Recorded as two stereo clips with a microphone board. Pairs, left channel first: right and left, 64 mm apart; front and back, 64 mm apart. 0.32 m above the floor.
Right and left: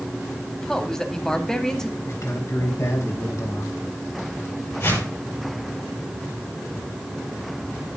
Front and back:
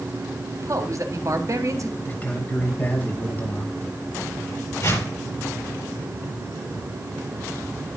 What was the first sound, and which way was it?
A man speaking, 170° right.